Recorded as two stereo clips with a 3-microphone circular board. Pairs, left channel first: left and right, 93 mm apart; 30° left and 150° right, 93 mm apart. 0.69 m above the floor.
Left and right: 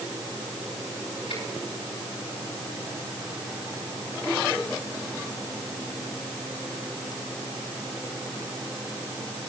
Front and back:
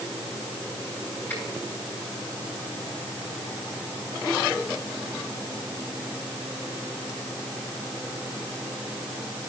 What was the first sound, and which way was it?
A finger snap, 95° left.